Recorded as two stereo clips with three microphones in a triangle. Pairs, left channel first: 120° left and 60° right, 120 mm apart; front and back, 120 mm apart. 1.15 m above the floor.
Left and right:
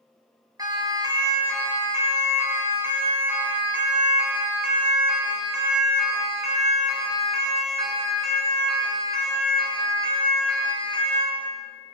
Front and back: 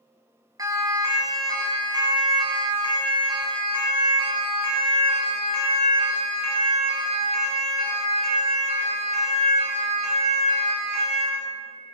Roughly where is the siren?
Behind right.